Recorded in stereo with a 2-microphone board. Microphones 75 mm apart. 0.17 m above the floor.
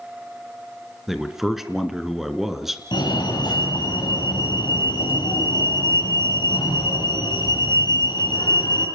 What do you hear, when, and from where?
1.1 s a man speaking: 5° right (ahead or behind), 2.5 m
2.9 s a fire alarm: 70° left (ahead or behind), 7.5 m